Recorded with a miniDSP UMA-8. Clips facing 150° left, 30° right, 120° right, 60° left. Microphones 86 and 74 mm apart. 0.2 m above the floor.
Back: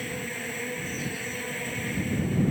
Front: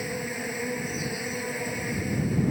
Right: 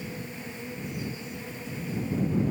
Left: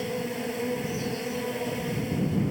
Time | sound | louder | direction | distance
0.0 | an insect | front 3 dB, left 8 dB | 45° left | ?